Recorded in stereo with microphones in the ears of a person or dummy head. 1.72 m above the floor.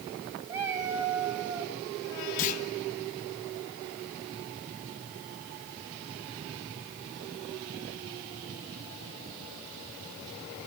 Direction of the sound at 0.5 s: 15° right (ahead or behind).